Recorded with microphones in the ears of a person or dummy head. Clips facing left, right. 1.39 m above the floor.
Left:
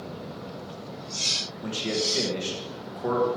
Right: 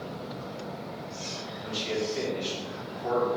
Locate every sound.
1.6 s a man speaking: 65° left (ahead or behind), 1.5 m